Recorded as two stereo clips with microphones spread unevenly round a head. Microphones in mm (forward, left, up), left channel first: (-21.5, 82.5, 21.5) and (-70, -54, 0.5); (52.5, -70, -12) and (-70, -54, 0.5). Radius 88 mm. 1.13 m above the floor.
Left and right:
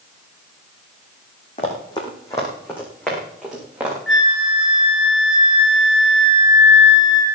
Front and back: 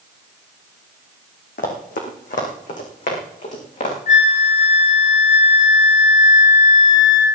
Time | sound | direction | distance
1.6 | running footsteps | 15° left | 3.5 m
4.1 | a flute | 20° right | 2 m